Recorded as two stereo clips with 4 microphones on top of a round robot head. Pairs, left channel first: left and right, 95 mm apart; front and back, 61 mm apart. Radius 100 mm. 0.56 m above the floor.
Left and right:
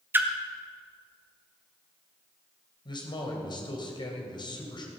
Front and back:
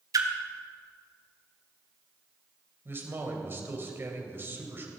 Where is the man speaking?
125° left, 3 m.